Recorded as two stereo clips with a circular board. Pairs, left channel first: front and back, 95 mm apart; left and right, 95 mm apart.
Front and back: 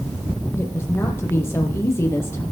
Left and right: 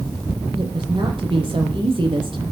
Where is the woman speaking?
65° right, 7 m.